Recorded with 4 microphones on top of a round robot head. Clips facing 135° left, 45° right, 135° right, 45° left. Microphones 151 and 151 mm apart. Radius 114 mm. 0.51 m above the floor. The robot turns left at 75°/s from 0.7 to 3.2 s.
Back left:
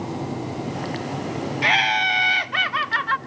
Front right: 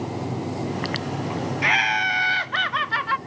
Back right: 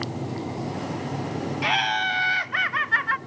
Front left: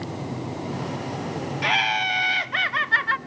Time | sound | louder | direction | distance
1.6 | laughter | back left 2 dB, front left 2 dB | 140° left | 0.9 m